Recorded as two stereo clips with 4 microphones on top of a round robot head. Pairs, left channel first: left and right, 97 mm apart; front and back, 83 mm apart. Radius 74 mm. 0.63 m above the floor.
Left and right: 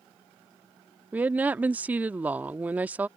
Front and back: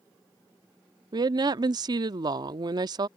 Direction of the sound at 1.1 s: 160° right.